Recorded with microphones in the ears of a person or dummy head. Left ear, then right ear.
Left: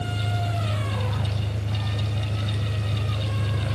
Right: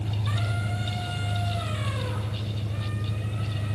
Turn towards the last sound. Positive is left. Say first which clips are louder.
# left 4 dB
turn(degrees=70)  # may be behind; listen again after turning